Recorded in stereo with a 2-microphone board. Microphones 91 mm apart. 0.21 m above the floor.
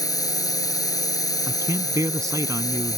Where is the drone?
45° left (ahead or behind).